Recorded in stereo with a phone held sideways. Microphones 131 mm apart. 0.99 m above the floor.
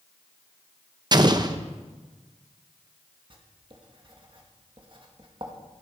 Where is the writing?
40° right (ahead or behind), 1.5 m.